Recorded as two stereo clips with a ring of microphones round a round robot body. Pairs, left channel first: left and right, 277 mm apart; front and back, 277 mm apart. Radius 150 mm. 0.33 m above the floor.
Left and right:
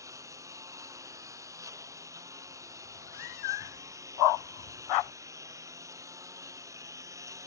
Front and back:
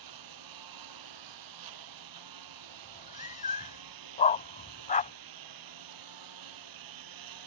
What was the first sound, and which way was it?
A lawn mower, 170° right.